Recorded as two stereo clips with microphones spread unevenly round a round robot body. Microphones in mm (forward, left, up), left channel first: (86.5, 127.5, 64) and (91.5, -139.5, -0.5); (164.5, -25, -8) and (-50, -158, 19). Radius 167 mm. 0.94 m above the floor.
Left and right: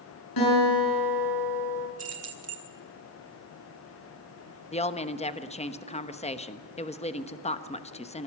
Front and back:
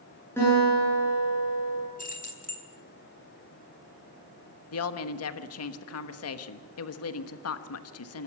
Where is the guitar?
115° left, 8.5 m.